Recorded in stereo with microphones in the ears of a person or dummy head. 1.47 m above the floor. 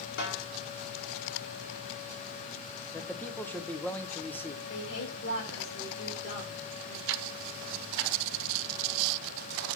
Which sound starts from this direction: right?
Ticking, at 7.1 s.